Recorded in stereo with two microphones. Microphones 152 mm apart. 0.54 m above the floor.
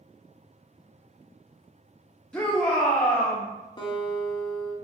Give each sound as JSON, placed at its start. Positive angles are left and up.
{"t": 2.3, "sound": "a shout", "side_deg": 5, "distance_m": 0.8}
{"t": 3.8, "sound": "a guitar", "side_deg": 30, "distance_m": 1.0}